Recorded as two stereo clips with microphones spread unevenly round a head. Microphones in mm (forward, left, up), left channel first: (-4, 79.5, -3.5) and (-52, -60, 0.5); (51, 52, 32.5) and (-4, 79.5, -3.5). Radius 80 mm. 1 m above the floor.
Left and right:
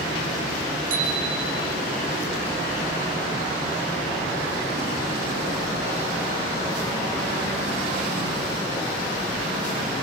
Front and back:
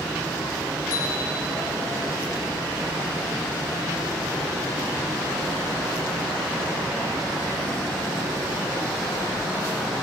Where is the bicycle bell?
70° right, 4.5 m.